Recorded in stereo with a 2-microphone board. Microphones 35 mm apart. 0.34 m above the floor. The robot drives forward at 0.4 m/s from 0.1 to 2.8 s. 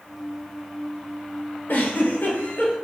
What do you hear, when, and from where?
1.7 s a giggle: 55° left (ahead or behind), 1.2 m; by 2.8 s 45° left (ahead or behind), 1.5 m